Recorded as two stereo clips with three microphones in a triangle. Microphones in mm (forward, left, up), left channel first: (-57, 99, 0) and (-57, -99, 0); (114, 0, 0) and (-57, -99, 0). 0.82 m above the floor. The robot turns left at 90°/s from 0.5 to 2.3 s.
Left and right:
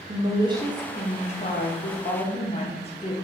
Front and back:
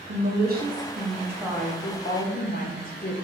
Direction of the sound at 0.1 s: 155° right.